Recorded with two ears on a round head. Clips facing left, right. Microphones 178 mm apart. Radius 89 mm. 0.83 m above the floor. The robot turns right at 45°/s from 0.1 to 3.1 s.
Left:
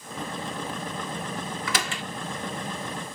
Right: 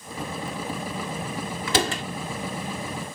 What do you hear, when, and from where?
1.7 s a door slam: 25° right (ahead or behind); by 2.0 s 40° right (ahead or behind)